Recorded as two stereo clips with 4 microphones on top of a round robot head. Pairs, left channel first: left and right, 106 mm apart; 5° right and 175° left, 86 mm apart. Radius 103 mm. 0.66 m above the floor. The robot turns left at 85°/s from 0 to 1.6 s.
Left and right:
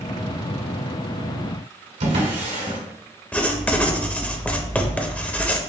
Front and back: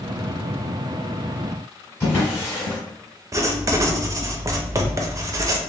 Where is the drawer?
80° right, 1.4 m.